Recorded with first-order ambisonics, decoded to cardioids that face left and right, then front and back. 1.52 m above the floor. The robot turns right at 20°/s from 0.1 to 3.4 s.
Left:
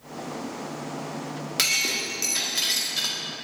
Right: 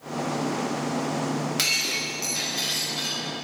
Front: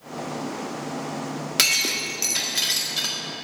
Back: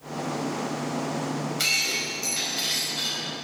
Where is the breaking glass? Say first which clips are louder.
Left 2 dB, front 4 dB; 10° left, 2 m; by 3.2 s 40° left, 2 m.